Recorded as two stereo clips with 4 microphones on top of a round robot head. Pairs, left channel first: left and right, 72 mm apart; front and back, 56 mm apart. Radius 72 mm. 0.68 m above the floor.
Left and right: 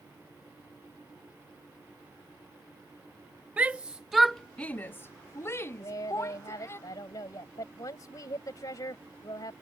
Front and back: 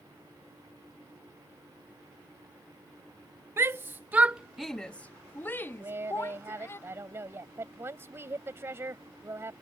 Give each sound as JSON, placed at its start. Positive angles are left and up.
{"t": 3.6, "sound": "a shout", "azimuth_deg": -155}
{"t": 5.8, "sound": "a woman speaking", "azimuth_deg": 140}